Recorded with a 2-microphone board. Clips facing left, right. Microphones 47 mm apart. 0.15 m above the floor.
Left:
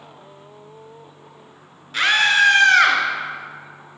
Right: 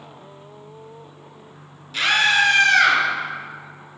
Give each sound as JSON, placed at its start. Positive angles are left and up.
{"t": 1.9, "sound": "a scream", "side_deg": 35, "distance_m": 1.7}